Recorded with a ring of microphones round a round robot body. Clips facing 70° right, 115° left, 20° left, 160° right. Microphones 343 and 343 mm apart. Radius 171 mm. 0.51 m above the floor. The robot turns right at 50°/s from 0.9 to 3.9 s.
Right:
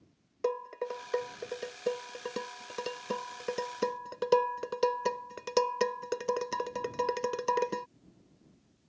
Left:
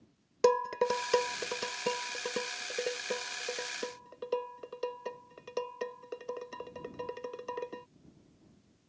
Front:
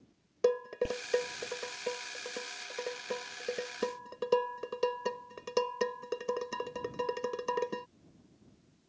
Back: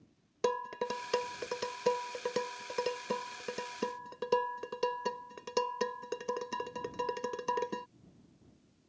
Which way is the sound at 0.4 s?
135° left.